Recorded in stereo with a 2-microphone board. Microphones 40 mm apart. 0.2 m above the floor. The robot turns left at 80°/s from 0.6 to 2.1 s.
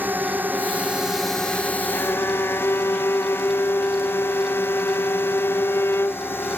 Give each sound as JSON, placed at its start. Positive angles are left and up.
{"t": 0.0, "sound": "a drone", "azimuth_deg": -130}
{"t": 1.9, "sound": "a violin", "side_deg": 70}